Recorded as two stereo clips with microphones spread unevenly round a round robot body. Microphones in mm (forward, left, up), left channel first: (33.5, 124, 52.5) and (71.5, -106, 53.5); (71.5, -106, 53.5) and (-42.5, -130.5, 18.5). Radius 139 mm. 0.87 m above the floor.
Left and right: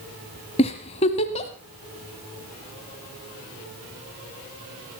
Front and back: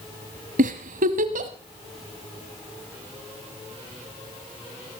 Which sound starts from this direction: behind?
A giggle, at 0.6 s.